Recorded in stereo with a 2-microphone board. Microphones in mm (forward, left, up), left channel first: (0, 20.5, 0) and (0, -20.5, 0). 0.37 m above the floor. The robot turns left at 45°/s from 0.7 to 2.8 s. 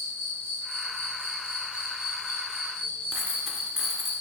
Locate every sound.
0.0 s an insect: 105° right, 1.5 m; by 4.2 s 160° left, 1.5 m
3.1 s a dropped coin: 5° right (ahead or behind), 0.8 m